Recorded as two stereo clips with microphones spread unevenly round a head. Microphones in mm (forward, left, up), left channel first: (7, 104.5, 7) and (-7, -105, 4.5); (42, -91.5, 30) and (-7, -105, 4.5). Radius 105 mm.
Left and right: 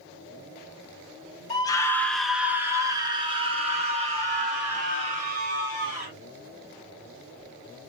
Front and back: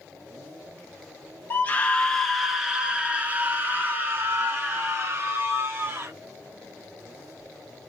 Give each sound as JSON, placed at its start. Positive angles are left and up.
{"t": 1.5, "sound": "a scream", "azimuth_deg": 90, "distance_m": 0.8}